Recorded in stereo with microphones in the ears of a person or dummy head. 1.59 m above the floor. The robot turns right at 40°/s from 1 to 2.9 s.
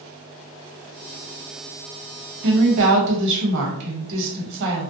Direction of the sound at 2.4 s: 80° right.